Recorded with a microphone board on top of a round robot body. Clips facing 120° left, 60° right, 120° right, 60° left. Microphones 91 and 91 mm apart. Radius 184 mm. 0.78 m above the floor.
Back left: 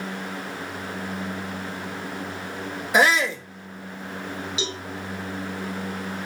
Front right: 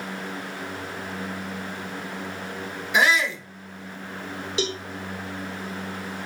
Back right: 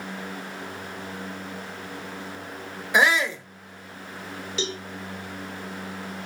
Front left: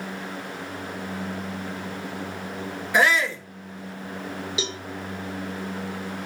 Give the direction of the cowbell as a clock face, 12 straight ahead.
1 o'clock.